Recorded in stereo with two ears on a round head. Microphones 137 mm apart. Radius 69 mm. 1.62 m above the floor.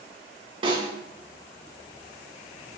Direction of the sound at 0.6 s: 35° right (ahead or behind).